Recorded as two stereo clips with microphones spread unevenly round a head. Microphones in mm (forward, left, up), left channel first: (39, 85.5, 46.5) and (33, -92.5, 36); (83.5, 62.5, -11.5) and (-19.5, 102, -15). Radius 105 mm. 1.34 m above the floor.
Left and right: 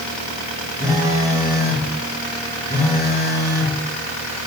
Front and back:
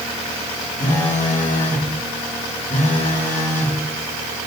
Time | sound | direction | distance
0.8 | a phone buzzing | 20° right | 1.9 m